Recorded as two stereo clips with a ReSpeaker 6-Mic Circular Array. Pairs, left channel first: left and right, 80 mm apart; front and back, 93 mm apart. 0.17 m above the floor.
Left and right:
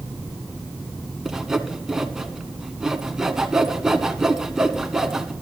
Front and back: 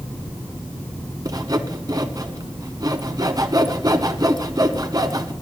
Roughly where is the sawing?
Behind.